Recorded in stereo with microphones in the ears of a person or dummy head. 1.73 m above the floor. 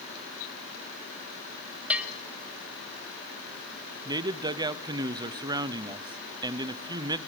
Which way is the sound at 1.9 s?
10° right (ahead or behind).